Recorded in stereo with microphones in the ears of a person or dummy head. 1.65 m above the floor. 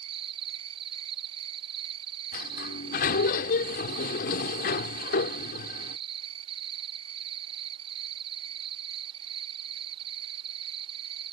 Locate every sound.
0.0 s an insect: 25° right (ahead or behind)
2.3 s a sliding door: 50° left (ahead or behind)